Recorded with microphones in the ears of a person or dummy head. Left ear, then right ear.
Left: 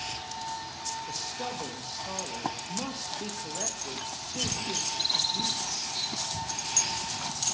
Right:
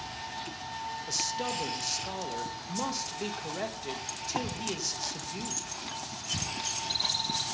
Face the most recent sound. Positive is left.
turn(degrees=-85)